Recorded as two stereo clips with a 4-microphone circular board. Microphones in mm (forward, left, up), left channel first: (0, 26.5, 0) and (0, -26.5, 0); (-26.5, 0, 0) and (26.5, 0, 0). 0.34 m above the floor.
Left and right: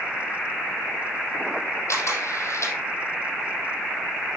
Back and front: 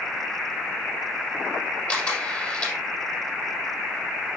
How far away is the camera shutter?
About 4.5 m.